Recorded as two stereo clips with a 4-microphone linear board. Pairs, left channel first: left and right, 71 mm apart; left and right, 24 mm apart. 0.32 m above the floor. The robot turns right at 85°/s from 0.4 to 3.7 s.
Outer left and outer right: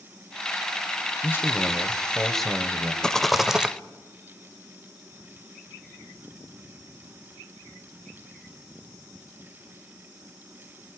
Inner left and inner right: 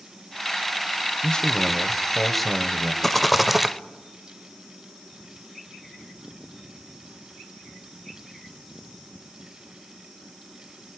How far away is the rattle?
About 0.7 m.